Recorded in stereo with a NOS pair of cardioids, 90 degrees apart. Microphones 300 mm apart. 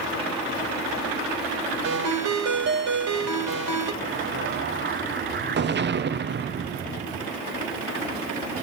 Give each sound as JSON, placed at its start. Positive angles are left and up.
{"t": 1.8, "sound": "a ringtone", "azimuth_deg": -65, "distance_m": 2.5}
{"t": 4.0, "sound": "an explosion", "azimuth_deg": -40, "distance_m": 0.8}